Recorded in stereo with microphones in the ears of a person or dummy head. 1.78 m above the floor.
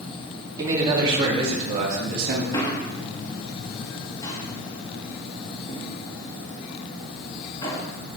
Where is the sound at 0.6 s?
15° right (ahead or behind), 3 m; by 2.4 s 60° right (ahead or behind), 2.5 m.